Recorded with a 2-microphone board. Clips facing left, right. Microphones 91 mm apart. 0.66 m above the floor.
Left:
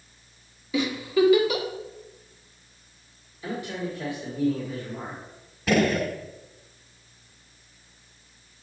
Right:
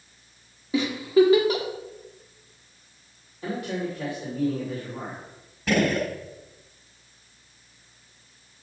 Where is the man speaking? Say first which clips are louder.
Right 2 dB; 70° right (ahead or behind), 3 m.